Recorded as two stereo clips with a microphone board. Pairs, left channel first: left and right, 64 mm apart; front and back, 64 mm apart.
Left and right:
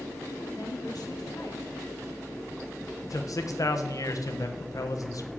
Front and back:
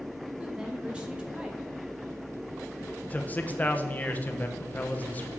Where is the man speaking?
65° left, 0.9 m.